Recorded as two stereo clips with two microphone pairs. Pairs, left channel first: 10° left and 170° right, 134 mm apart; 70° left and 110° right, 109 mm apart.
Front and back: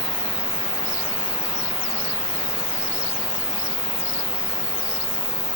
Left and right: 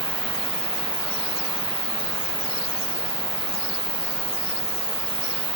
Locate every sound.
0.0 s an insect: 75° right